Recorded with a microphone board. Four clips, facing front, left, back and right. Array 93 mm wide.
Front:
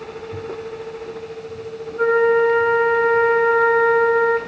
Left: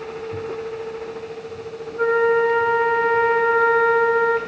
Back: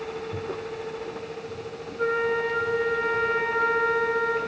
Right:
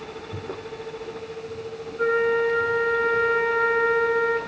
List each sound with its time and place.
2.0 s a flute: 50° left, 1.8 m